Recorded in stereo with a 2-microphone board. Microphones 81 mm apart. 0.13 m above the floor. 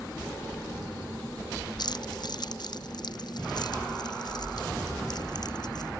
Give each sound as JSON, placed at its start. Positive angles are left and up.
{"t": 1.8, "sound": "keys jangling", "side_deg": 60}